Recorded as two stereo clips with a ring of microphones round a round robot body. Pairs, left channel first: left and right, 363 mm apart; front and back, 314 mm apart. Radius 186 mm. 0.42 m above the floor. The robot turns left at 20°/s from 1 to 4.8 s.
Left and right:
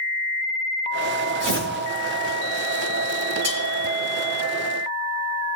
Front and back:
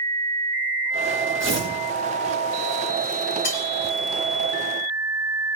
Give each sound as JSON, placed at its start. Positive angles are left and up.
{"t": 1.4, "sound": "tearing paper", "azimuth_deg": -75, "distance_m": 7.0}
{"t": 3.4, "sound": "cutlery clinking", "azimuth_deg": -95, "distance_m": 4.5}